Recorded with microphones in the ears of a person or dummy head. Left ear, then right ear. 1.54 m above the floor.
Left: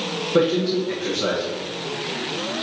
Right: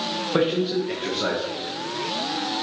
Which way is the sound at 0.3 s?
25° right (ahead or behind).